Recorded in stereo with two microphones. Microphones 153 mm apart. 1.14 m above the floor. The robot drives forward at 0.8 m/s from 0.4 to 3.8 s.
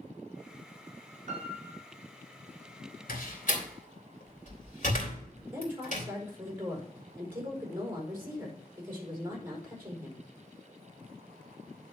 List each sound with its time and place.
1.3 s a piano: 50° right (ahead or behind), 4 m; by 1.8 s 45° right (ahead or behind), 4 m
3.1 s a door slam: 65° left (ahead or behind), 2 m; by 6.1 s 55° left (ahead or behind), 2.5 m
5.5 s a woman speaking: 15° right (ahead or behind), 4.5 m